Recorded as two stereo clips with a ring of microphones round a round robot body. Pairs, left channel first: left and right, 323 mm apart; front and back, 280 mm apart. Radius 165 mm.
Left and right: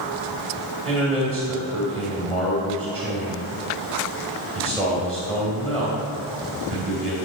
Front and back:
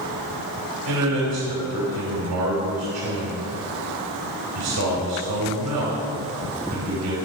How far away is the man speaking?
About 2.5 m.